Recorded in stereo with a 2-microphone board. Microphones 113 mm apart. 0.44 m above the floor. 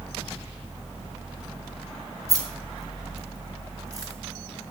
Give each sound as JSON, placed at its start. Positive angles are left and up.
{"t": 2.3, "sound": "keys jangling", "side_deg": -30, "distance_m": 1.9}